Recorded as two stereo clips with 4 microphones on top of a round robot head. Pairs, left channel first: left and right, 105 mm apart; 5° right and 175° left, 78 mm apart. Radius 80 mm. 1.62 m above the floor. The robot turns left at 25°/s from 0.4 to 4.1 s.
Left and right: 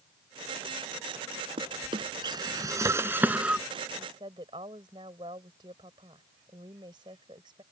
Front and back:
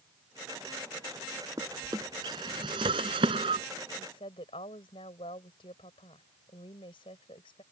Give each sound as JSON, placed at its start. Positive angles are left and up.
{"t": 1.6, "sound": "a drawer", "azimuth_deg": -120}
{"t": 4.0, "sound": "a woman speaking", "azimuth_deg": -30}